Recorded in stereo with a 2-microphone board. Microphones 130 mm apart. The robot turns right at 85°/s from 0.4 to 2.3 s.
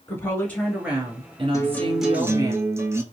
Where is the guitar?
145° left, 0.6 m; by 3.0 s 150° right, 0.6 m.